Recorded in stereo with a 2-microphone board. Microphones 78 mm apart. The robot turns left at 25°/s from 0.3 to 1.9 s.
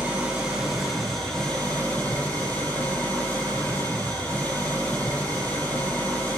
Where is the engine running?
165° right, 3.5 m; by 6.4 s 155° left, 3.5 m.